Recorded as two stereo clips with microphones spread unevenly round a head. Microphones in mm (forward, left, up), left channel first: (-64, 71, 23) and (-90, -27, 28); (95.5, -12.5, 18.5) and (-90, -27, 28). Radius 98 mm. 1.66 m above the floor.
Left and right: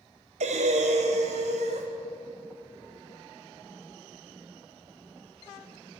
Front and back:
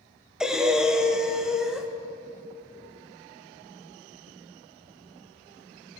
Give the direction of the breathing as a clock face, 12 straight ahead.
3 o'clock.